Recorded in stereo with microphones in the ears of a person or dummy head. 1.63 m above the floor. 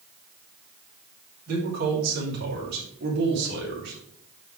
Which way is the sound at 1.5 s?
55° right (ahead or behind).